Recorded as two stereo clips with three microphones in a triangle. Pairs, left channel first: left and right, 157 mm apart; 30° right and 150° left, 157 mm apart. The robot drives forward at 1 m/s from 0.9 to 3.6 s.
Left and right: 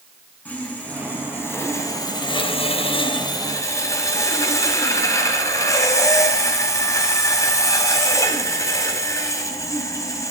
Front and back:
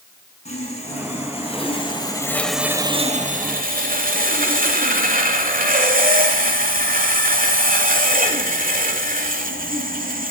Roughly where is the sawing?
Ahead.